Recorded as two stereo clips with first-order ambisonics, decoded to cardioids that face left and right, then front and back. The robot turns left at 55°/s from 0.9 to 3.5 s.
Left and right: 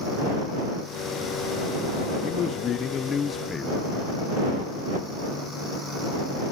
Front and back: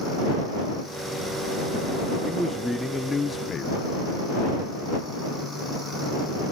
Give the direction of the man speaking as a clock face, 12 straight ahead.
8 o'clock.